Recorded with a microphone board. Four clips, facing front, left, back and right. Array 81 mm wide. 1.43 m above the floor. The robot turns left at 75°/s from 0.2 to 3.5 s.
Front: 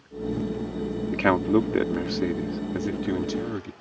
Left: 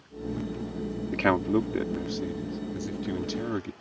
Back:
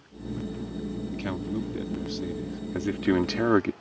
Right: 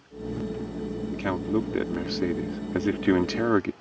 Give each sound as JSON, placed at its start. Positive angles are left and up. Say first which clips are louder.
{"t": 1.1, "sound": "a man speaking", "louder": "left 3 dB, front 13 dB", "azimuth_deg": 40}